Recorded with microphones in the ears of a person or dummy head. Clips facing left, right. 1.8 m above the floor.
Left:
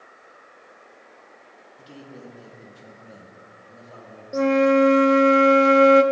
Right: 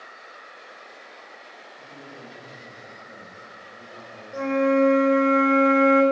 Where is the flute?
55° left (ahead or behind), 0.5 m.